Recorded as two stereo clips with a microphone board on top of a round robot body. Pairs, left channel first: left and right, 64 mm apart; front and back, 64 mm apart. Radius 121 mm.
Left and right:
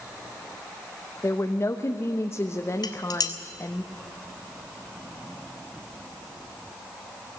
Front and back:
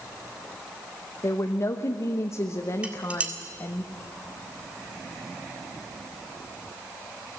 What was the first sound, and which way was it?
A woman speaking, 45° left.